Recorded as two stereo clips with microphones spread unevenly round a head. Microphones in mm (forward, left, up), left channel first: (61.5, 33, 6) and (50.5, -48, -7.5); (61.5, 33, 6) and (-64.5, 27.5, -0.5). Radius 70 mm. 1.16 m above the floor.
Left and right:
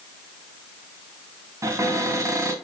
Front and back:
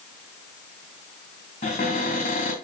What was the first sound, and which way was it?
A cupboard door, 45° right.